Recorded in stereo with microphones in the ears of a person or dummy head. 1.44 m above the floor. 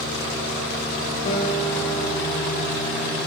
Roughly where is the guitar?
Left.